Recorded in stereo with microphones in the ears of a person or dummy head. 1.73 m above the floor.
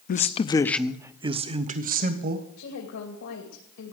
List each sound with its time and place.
0.1 s a man speaking: 50° left (ahead or behind), 0.7 m; by 2.5 s 50° right (ahead or behind), 1.5 m
2.6 s a woman speaking: 75° left (ahead or behind), 2.5 m